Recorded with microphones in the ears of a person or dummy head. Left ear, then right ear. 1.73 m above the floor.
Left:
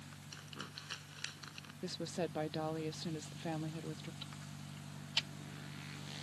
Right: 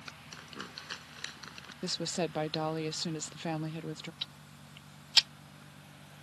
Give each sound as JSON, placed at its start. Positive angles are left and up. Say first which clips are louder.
{"t": 0.3, "sound": "crumpling", "louder": "right 3 dB", "side_deg": -20}
{"t": 1.8, "sound": "a woman speaking", "louder": "right 7 dB", "side_deg": -25}
{"t": 4.2, "sound": "ticking", "louder": "right 8 dB", "side_deg": -35}